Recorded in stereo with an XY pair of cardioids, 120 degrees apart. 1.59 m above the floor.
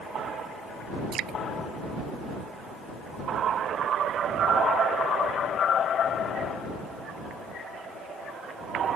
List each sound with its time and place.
1.1 s dripping: 60° right